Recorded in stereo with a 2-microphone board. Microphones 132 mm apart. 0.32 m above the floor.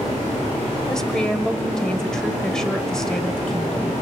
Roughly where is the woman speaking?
Centre.